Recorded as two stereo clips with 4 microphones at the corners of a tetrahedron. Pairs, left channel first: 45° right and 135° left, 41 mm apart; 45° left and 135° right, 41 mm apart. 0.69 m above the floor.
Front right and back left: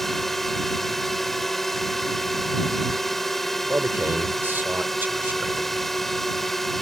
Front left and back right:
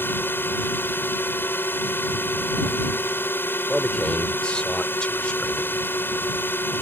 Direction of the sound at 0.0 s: 35° left.